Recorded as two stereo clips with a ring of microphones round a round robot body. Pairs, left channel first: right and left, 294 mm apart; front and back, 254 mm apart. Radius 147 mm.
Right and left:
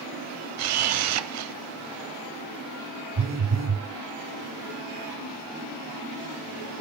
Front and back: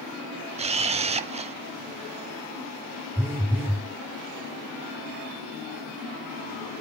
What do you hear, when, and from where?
0.6 s a camera shutter: 115° left, 0.6 m
3.2 s a phone buzzing: 100° left, 0.9 m